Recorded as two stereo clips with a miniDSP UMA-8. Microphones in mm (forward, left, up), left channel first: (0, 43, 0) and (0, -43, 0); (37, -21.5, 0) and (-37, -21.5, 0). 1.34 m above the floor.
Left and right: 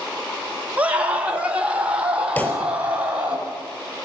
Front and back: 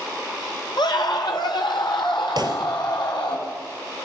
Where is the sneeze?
No sneeze in this recording.